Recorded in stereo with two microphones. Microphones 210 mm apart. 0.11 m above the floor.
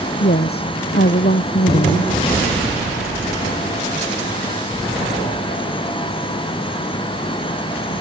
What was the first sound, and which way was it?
A woman speaking, 50° left (ahead or behind).